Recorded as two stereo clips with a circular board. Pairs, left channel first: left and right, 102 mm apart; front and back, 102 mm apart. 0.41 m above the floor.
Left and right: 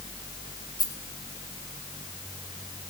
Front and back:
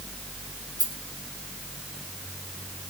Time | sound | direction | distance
0.8 | a rattle | 135° left | 3.5 m